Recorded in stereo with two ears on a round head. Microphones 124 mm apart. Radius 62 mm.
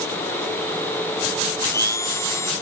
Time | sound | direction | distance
1.6 | a blender | 20° left (ahead or behind) | ?